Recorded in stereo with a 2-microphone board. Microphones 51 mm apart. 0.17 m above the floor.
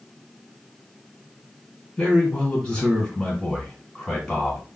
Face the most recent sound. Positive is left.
turn(degrees=20)  # may be behind; listen again after turning